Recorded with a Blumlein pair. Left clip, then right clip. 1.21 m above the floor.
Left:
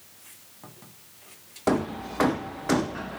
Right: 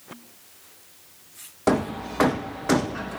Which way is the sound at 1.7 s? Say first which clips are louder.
Right 3 dB; 10° right.